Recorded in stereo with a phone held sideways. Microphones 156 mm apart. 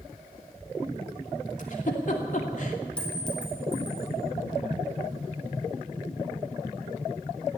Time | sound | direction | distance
1.6 | a giggle | 55° left (ahead or behind) | 2.5 m
3.0 | a clink | 5° left (ahead or behind) | 3.5 m